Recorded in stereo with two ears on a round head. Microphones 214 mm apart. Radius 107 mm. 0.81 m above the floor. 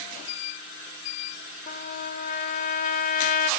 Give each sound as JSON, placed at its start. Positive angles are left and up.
{"t": 1.7, "sound": "a trumpet", "side_deg": 35, "distance_m": 1.8}